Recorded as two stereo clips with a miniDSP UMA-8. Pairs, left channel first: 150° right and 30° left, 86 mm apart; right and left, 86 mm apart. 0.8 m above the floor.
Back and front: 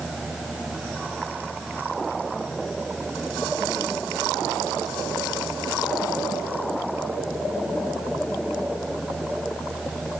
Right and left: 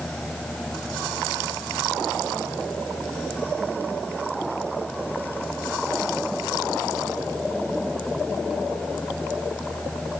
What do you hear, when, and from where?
Only background noise.